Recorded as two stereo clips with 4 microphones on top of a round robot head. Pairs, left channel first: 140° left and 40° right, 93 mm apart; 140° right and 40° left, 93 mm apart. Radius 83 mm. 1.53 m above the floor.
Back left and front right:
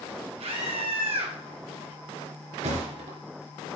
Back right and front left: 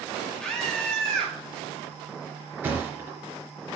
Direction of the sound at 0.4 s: 60° right.